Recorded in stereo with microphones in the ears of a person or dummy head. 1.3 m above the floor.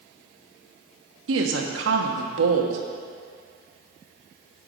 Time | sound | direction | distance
1.3 | a woman speaking | 65° right (ahead or behind) | 1.0 m